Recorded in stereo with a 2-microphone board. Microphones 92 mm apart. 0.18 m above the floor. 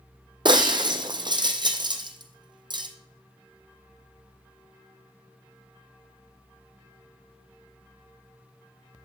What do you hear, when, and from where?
0.5 s breaking glass: 55° right (ahead or behind), 1.0 m